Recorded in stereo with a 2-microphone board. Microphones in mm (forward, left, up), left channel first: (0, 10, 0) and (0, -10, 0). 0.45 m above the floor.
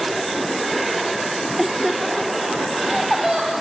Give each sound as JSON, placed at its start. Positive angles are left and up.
{"t": 1.6, "sound": "laughter", "side_deg": -5, "distance_m": 1.0}